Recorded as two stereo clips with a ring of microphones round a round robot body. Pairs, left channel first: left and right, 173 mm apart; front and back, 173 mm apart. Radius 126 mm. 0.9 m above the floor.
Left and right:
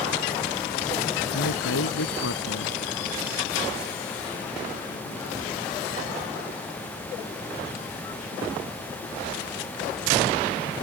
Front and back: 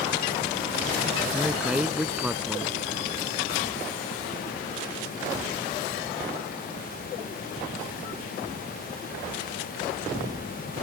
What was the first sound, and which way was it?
A man speaking, 95° left.